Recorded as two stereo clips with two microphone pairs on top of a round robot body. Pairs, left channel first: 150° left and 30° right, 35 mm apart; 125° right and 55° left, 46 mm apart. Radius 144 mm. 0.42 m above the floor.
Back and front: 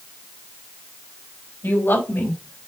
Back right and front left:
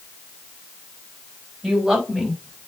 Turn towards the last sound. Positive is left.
turn(degrees=145)